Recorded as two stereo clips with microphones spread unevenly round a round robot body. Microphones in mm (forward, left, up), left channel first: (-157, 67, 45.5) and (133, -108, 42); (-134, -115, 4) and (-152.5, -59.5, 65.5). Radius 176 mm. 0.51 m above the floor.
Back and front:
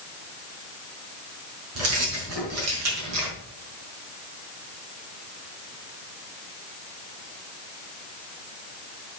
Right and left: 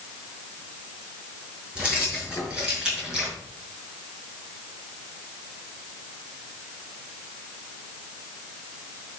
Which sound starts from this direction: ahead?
Keys jangling, at 1.8 s.